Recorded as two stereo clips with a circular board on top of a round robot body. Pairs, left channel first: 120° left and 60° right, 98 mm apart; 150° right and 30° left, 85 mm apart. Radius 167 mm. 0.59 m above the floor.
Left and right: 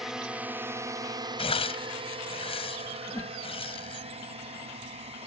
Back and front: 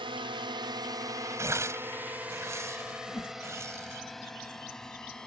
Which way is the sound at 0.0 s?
30° left.